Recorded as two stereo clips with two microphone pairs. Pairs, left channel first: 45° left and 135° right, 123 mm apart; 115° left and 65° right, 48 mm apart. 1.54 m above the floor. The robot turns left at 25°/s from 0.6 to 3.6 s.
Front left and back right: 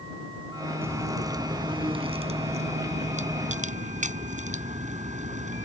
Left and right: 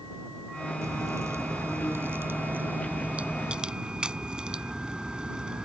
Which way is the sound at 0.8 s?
65° right.